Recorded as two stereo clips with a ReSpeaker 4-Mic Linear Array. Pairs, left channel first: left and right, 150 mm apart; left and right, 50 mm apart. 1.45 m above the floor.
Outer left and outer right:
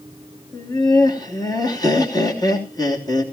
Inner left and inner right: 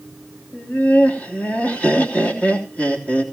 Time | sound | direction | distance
0.5 | laughter | 25° left (ahead or behind) | 3 m